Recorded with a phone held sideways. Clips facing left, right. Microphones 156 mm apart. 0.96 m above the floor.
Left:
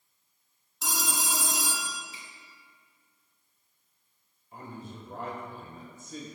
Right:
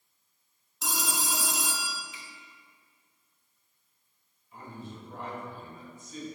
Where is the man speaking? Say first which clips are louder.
Left 1 dB; 50° left (ahead or behind), 4.5 m.